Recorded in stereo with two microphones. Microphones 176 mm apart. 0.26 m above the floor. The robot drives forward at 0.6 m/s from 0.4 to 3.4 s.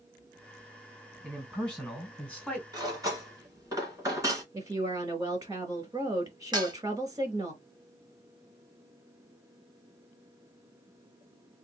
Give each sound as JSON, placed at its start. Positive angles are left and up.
{"t": 1.2, "sound": "a man speaking", "side_deg": 5, "distance_m": 2.5}
{"t": 2.7, "sound": "cutlery clinking", "side_deg": -20, "distance_m": 1.5}
{"t": 4.5, "sound": "a woman speaking", "side_deg": -20, "distance_m": 1.5}
{"t": 6.5, "sound": "dishes clattering", "side_deg": -25, "distance_m": 0.9}